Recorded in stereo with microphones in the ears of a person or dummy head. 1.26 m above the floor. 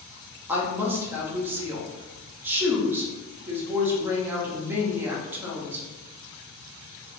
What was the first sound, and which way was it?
A woman speaking, 10° right (ahead or behind).